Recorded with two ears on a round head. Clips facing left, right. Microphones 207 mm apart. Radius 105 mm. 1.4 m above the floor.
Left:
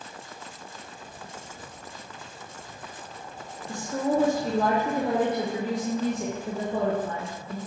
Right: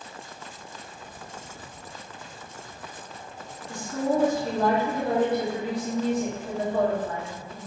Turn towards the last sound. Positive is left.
turn(degrees=65)  # may be behind; listen again after turning